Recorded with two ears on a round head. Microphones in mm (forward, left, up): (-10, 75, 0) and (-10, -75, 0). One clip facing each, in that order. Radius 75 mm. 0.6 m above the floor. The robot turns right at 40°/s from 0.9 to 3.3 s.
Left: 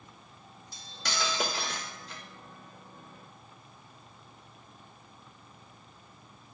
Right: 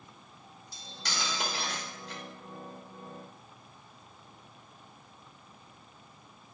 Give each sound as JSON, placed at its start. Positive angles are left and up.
{"t": 0.7, "sound": "cutlery clinking", "azimuth_deg": 45, "distance_m": 1.1}